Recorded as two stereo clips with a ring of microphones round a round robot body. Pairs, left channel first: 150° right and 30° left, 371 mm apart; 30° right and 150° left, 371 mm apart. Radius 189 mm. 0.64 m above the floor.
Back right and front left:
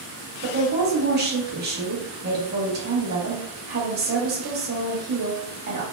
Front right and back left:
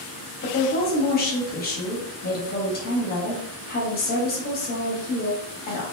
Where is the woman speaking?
5° left, 1.0 m.